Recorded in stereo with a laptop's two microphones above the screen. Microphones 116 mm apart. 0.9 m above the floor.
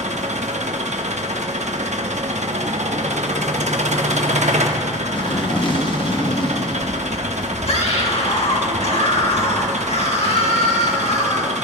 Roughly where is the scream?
Left.